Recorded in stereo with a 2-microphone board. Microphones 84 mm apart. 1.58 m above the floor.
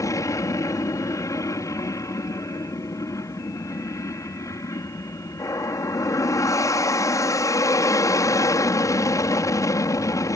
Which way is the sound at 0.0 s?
40° left (ahead or behind).